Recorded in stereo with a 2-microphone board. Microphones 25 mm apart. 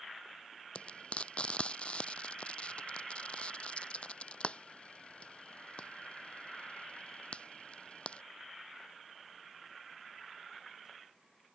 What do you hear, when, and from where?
0.8 s frying: 50° left (ahead or behind)